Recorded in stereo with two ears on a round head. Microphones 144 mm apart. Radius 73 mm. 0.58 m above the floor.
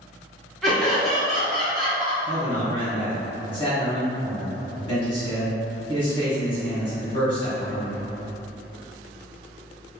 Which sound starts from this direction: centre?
Laughter, at 0.6 s.